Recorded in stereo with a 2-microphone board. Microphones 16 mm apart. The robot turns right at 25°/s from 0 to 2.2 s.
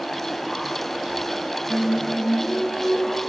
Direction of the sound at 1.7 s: 55° right (ahead or behind).